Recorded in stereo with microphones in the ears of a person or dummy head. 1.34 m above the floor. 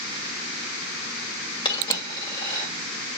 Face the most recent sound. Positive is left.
turn(degrees=30)  # may be behind; listen again after turning